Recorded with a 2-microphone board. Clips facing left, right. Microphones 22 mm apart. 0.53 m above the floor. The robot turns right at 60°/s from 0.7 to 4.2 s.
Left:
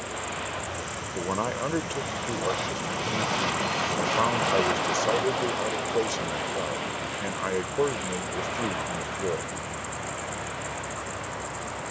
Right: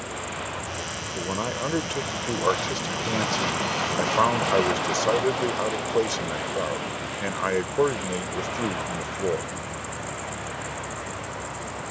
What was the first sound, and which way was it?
A man speaking, 150° left.